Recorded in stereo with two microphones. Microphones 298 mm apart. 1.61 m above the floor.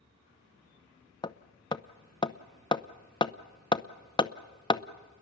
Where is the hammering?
15° left (ahead or behind), 0.7 m.